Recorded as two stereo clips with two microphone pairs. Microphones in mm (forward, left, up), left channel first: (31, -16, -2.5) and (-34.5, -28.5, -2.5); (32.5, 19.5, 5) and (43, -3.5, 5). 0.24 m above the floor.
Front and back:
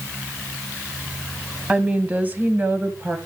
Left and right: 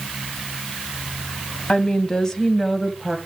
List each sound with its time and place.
1.7 s a woman speaking: 130° left, 1.3 m; by 3.2 s 135° right, 1.1 m